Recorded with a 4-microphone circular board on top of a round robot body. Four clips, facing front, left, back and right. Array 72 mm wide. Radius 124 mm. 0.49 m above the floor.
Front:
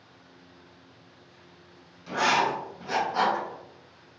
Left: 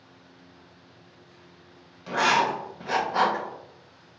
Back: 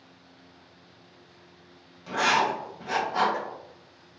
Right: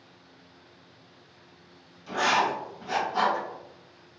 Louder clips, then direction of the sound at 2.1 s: Left 2 dB, even; 105° left.